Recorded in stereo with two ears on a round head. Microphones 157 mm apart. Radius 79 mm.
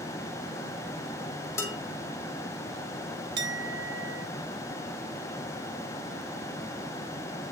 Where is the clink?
75° right (ahead or behind), 1.7 m.